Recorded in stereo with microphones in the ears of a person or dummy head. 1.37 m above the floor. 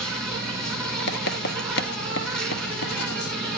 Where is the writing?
70° left (ahead or behind), 1.7 m.